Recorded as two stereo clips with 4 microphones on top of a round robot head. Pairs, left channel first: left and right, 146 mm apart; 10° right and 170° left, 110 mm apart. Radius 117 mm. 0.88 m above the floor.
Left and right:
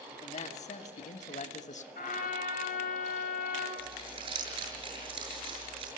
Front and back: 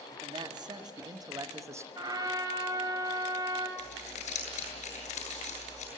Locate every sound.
0.2 s a man speaking: 125° left, 2.5 m; by 1.9 s 110° left, 1.6 m
1.9 s a trumpet: 115° left, 4 m
3.8 s crumpling: 35° right, 8 m